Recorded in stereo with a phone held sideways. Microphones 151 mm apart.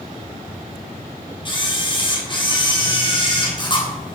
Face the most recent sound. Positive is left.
turn(degrees=35)  # may be behind; listen again after turning